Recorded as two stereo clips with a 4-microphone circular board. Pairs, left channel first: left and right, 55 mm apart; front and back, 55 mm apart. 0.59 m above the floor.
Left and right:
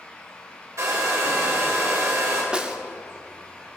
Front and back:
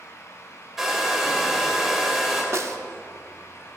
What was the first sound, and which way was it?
A hair dryer, 95° right.